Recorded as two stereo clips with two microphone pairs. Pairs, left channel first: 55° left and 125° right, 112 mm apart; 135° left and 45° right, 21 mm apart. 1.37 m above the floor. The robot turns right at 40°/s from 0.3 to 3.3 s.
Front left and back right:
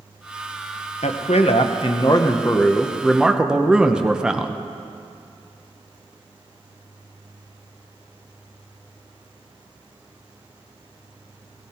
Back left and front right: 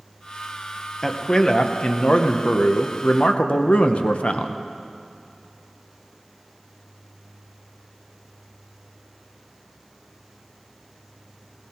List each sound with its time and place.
1.0 s a man speaking: 65° left, 0.8 m; by 4.6 s 155° left, 0.8 m